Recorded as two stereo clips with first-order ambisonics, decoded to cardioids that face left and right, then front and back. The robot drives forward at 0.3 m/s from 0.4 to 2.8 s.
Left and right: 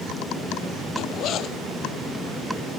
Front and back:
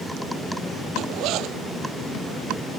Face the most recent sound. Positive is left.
turn(degrees=140)